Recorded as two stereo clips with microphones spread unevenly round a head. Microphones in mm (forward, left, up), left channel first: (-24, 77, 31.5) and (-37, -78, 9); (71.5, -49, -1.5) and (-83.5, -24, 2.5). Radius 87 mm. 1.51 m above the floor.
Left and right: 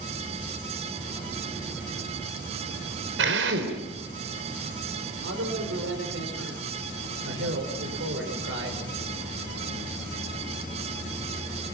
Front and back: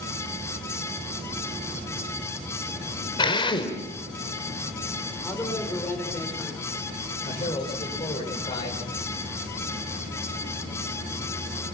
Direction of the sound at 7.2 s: 70° right.